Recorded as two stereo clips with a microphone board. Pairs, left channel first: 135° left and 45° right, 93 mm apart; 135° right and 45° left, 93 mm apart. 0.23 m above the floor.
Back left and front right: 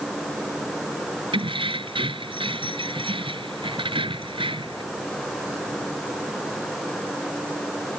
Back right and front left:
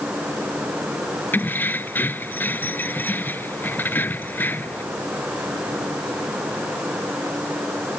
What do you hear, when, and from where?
1.3 s keys jangling: 65° right